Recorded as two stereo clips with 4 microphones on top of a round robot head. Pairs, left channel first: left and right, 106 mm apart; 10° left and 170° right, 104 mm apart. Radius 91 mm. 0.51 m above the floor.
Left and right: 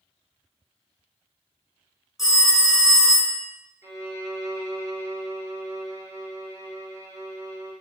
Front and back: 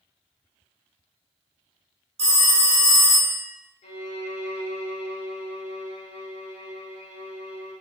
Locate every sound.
2.2 s a phone ringing: 175° right, 0.6 m
3.8 s a violin: 25° right, 0.5 m